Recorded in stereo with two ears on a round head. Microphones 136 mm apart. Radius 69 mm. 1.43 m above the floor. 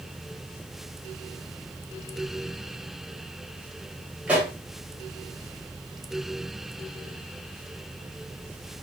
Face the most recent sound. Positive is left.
turn(degrees=-5)  # may be behind; listen again after turning